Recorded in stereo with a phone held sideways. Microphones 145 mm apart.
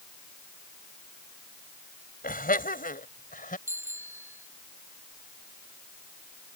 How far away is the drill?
I don't hear a drill.